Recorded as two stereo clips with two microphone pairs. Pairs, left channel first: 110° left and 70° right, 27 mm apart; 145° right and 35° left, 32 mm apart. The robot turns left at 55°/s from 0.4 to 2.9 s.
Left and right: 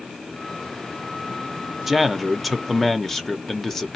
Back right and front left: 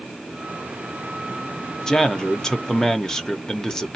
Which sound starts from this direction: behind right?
A man speaking, at 1.9 s.